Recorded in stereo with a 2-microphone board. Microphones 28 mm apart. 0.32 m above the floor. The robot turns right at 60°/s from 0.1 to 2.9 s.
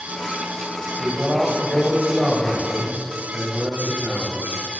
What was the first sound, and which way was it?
A man speaking, 110° right.